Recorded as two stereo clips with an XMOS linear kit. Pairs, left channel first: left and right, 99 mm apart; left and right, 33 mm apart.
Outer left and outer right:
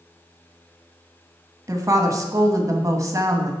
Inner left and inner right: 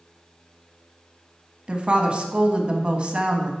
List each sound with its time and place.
1.7 s a woman speaking: 35° right (ahead or behind), 1.2 m